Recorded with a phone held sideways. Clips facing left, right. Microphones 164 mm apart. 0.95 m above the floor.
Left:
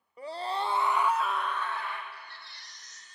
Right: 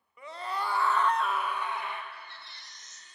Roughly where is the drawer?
No drawer in this recording.